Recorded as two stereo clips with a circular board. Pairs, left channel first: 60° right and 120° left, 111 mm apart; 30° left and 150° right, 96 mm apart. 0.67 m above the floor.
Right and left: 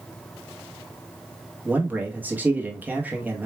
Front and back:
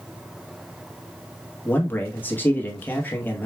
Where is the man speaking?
70° left, 1.0 m.